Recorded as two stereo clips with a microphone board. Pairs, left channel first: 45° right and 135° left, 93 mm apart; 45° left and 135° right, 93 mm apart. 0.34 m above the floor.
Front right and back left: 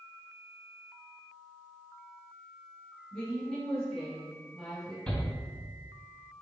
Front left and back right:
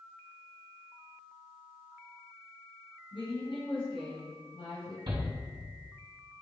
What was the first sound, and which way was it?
A woman speaking, 35° left.